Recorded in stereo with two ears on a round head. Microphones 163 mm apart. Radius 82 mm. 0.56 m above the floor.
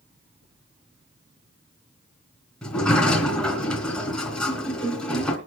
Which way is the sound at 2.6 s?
5° left (ahead or behind).